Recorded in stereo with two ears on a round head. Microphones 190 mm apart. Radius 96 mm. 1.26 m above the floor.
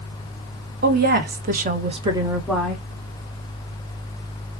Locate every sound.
0.8 s a woman speaking: 50° right (ahead or behind), 1.0 m; by 2.8 s 10° left (ahead or behind), 0.8 m